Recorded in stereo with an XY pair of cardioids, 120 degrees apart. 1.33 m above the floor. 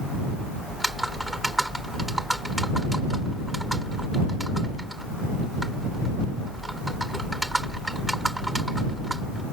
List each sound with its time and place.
0.7 s typing on a keyboard: 5° right